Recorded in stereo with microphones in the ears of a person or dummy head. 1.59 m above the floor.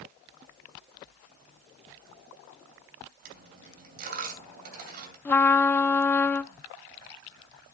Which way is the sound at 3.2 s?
55° right (ahead or behind).